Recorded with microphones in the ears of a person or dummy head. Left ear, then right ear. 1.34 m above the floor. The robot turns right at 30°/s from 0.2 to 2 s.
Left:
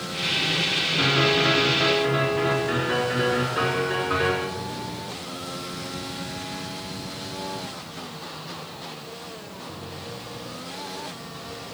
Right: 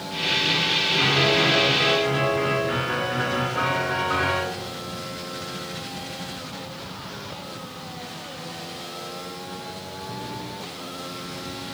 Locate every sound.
1.0 s a piano: 30° right, 4 m; by 4.4 s straight ahead, 4 m